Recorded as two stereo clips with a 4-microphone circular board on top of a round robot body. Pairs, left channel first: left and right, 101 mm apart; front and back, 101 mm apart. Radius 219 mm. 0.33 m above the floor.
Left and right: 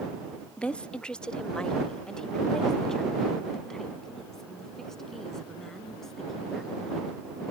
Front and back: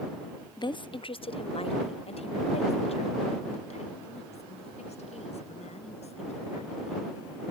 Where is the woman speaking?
15° left; by 7.0 s 5° left.